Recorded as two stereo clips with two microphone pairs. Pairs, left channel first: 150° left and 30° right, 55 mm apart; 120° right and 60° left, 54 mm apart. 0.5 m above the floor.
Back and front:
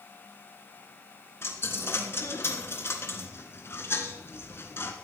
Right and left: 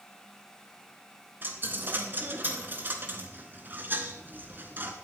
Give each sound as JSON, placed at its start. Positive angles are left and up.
{"t": 1.4, "sound": "a dropped coin", "azimuth_deg": 110, "distance_m": 1.6}